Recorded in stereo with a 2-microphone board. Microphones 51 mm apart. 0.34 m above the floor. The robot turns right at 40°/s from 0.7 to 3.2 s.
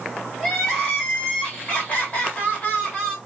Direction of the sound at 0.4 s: 10° left (ahead or behind).